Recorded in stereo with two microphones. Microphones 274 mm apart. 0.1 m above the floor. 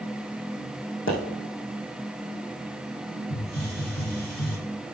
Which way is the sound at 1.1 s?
45° left (ahead or behind).